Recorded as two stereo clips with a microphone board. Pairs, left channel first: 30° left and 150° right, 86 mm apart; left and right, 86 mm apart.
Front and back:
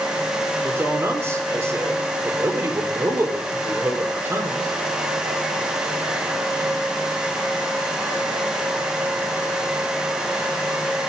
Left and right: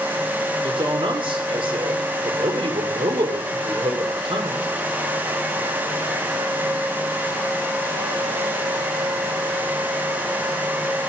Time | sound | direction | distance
0.6 | a man speaking | 90° right | 4.5 m